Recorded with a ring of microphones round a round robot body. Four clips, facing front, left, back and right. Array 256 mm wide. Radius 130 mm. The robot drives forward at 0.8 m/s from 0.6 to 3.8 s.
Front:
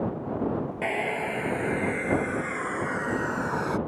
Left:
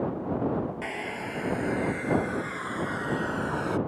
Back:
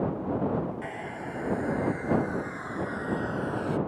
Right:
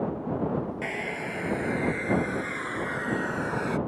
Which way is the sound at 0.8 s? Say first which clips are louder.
Right 1 dB, front 8 dB; 10° right.